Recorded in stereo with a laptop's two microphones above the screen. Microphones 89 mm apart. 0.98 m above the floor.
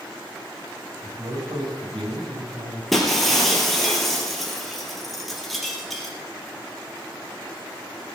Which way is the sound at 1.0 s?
60° right (ahead or behind).